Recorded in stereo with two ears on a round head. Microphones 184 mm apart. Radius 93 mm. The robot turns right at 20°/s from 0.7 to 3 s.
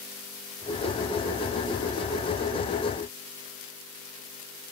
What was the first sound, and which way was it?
Only background noise.